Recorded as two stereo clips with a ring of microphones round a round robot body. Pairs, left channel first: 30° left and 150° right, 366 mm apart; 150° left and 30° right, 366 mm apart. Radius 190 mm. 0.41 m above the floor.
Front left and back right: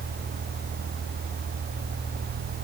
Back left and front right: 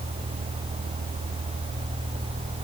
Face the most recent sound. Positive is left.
No sound to turn to.